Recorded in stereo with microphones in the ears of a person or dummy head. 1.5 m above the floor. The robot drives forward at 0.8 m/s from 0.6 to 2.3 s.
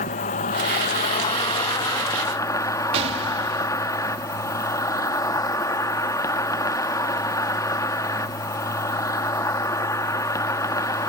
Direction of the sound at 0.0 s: 30° left (ahead or behind).